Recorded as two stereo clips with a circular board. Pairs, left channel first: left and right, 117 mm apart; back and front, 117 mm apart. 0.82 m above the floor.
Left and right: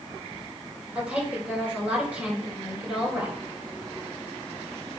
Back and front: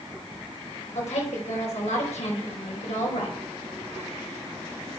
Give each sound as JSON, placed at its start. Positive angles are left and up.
{"t": 0.9, "sound": "a woman speaking", "azimuth_deg": -170, "distance_m": 4.5}